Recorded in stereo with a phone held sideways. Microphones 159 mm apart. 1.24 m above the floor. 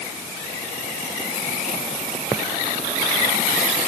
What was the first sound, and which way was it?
Only background noise.